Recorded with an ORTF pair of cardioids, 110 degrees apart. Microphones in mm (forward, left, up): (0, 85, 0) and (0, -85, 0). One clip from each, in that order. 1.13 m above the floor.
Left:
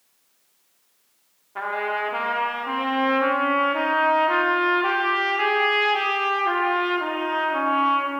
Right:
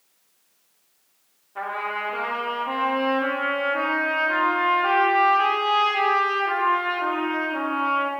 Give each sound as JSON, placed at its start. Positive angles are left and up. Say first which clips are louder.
{"t": 1.6, "sound": "a trumpet", "louder": "left 2 dB", "azimuth_deg": 30, "distance_m": 1.4}